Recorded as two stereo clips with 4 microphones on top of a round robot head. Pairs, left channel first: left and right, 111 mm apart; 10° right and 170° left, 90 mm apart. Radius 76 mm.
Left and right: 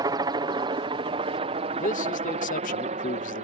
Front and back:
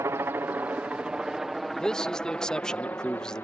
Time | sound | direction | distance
0.0 | a helicopter | 130° right | ?
1.8 | a man speaking | 70° left | ?